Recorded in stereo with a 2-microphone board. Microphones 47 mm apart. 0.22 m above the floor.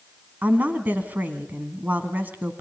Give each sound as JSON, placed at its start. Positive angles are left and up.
{"t": 0.4, "sound": "a woman speaking", "side_deg": -40, "distance_m": 2.0}